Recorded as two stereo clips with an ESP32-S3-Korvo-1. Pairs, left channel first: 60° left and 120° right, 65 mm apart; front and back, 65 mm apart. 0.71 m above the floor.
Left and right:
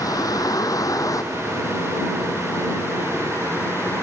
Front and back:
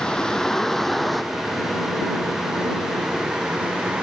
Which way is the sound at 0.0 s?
75° left.